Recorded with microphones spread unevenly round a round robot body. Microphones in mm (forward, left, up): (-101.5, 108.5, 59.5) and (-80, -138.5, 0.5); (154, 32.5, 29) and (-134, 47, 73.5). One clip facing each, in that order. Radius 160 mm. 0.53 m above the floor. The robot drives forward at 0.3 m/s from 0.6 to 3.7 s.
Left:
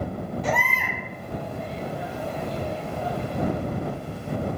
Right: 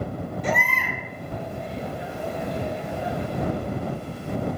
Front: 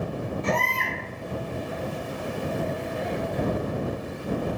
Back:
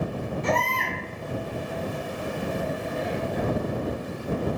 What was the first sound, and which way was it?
A baby crying, 150° right.